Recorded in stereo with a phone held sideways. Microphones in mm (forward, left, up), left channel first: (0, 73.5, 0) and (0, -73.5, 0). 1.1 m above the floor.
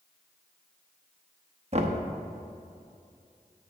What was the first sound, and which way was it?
Knocking, 45° right (ahead or behind).